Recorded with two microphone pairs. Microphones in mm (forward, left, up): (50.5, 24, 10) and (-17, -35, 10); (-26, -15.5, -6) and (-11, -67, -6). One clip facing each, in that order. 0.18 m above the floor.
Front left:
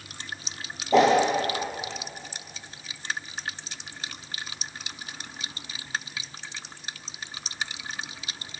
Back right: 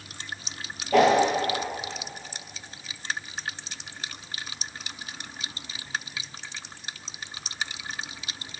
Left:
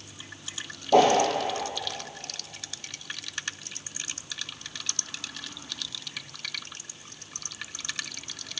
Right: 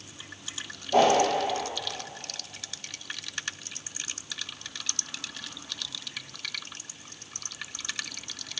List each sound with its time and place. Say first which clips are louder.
0.9 s a whoosh: even, left 2 dB; 105° left, 0.7 m